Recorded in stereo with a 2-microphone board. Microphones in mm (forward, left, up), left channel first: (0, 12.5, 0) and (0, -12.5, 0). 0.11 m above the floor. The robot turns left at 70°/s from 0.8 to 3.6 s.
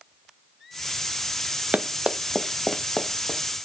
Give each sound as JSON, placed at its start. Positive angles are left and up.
{"t": 1.7, "sound": "running footsteps", "side_deg": -80, "distance_m": 0.7}